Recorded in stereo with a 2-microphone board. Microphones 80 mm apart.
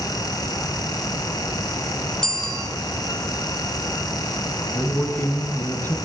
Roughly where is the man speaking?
Left.